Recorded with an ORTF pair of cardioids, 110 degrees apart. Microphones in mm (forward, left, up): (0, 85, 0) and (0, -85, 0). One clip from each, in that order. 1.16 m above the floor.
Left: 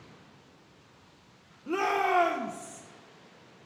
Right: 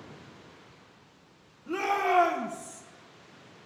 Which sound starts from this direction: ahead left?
A shout, at 1.7 s.